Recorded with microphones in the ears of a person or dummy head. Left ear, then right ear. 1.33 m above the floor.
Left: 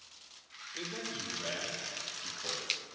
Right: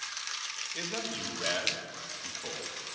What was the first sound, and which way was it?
A man speaking, 55° right (ahead or behind).